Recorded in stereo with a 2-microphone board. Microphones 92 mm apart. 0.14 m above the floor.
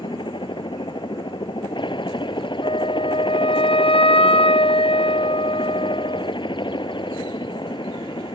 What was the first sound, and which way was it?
A helicopter, 60° left (ahead or behind).